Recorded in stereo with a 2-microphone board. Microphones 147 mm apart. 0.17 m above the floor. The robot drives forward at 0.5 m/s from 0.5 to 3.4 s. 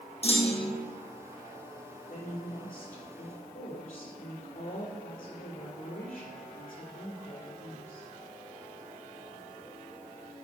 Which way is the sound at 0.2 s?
45° left (ahead or behind).